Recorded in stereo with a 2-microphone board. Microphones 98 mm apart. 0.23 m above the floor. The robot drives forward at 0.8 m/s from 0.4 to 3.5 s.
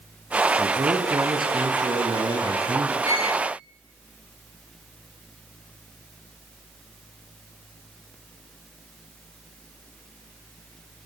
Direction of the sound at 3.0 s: 85° left.